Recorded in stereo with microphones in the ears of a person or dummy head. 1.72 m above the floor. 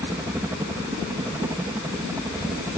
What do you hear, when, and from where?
0.0 s a helicopter: 5° right (ahead or behind)